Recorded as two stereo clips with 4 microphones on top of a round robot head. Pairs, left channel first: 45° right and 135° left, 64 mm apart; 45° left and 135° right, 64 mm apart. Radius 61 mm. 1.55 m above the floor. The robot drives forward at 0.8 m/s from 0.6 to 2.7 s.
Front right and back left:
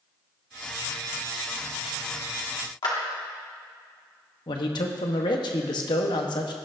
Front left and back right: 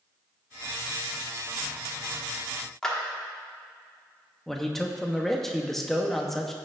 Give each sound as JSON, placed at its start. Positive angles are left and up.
{"t": 2.8, "sound": "a clap", "azimuth_deg": -35, "distance_m": 1.8}
{"t": 4.5, "sound": "a man speaking", "azimuth_deg": -40, "distance_m": 1.0}